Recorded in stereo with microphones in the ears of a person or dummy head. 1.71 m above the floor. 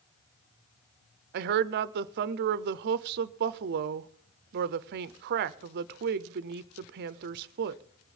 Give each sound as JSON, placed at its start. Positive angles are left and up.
{"t": 1.3, "sound": "a woman speaking", "side_deg": -55, "distance_m": 0.6}